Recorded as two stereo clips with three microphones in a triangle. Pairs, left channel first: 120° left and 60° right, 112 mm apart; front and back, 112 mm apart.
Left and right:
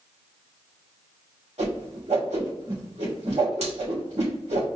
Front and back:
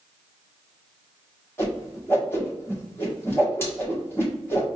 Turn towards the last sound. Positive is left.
turn(degrees=-70)